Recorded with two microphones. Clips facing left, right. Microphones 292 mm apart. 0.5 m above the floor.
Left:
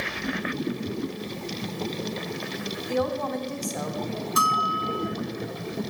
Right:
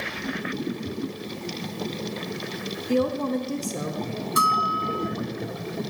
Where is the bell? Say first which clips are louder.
Right 1 dB; 30° right (ahead or behind), 0.7 m.